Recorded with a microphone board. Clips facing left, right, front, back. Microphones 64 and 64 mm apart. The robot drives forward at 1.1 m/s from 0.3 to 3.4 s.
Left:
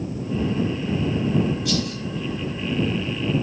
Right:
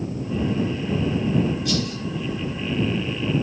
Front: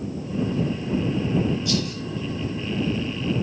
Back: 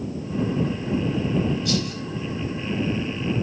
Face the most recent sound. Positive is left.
turn(degrees=180)